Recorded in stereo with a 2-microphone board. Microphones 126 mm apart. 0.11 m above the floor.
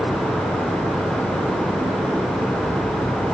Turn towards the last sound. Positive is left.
No sound to turn to.